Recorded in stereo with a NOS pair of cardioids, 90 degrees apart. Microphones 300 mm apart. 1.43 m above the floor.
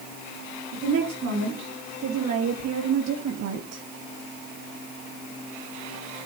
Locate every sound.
0.7 s a woman speaking: 65° right, 2.5 m; by 3.8 s 55° right, 1.0 m